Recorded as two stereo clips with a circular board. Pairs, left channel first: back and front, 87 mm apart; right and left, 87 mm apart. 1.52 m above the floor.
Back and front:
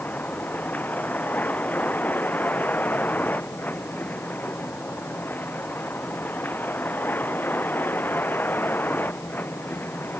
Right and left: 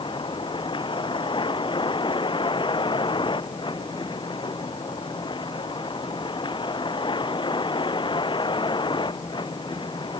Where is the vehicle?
110° right; by 10.2 s 115° right.